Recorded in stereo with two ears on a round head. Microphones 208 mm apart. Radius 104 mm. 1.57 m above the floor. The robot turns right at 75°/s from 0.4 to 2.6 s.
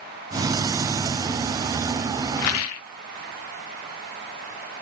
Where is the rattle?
80° left, 0.5 m; by 2.8 s 65° left (ahead or behind), 0.5 m.